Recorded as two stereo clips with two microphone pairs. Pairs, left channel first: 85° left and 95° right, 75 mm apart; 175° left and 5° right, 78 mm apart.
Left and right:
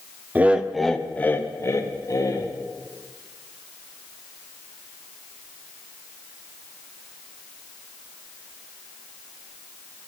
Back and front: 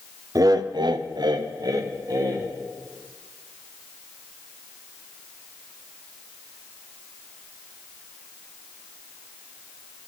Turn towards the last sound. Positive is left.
turn(degrees=45)